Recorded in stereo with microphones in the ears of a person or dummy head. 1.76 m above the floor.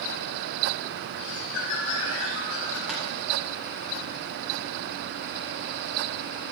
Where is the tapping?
Centre (ahead or behind), 5 m.